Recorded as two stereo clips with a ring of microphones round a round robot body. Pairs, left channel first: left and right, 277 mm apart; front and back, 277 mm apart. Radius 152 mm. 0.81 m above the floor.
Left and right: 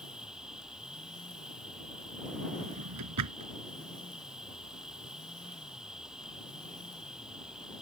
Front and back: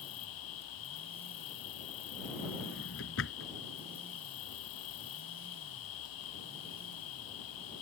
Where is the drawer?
55° right.